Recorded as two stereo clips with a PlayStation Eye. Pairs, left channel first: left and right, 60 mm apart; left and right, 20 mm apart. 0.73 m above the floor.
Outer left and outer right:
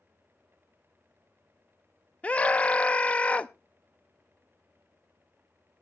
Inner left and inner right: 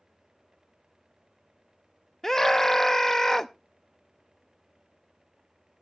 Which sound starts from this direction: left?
A scream, at 2.2 s.